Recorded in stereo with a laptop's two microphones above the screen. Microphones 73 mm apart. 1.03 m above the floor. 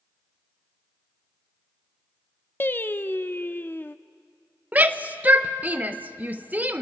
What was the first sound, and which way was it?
Singing, 30° left (ahead or behind).